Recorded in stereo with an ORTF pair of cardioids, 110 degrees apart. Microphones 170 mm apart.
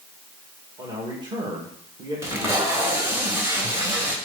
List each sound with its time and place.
0.8 s a man speaking: 25° right, 2 m
2.2 s tape being pulled: 15° right, 2.5 m